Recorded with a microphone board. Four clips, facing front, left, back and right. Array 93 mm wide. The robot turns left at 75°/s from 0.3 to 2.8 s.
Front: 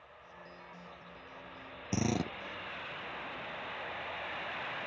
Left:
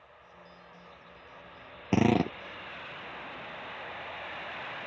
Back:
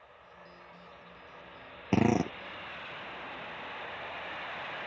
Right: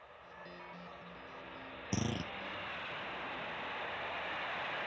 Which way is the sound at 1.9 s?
135° left.